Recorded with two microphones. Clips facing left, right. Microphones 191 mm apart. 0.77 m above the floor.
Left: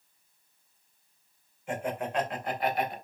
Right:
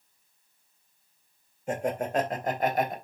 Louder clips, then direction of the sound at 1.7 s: Right 4 dB; 40° right (ahead or behind).